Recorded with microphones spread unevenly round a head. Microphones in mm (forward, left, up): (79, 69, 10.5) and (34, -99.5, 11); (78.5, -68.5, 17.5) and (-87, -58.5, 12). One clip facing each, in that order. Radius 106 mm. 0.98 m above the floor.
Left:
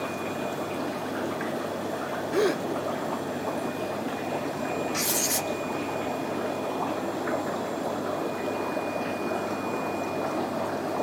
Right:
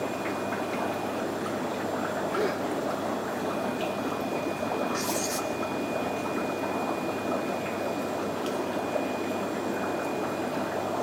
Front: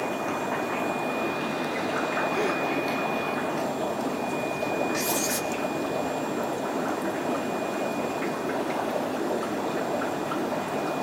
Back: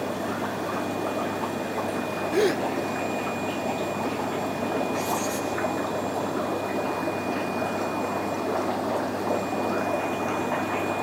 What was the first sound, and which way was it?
A gasp, 130° left.